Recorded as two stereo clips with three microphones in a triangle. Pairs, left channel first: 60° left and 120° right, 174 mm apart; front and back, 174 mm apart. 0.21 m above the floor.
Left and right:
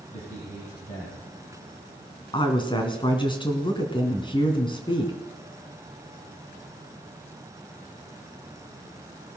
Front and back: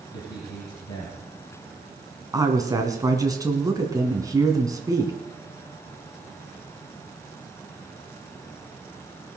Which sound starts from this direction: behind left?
A woman speaking, at 2.3 s.